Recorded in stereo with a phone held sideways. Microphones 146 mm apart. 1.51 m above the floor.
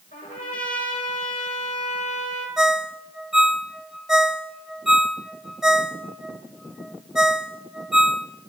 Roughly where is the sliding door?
No sliding door in this recording.